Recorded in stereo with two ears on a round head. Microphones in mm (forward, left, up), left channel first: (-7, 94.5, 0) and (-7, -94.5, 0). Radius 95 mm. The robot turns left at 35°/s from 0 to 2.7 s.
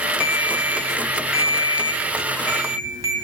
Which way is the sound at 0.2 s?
70° left.